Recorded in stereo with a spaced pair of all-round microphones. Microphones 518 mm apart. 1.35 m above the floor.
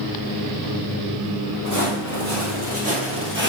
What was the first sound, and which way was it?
Footsteps, 35° right (ahead or behind).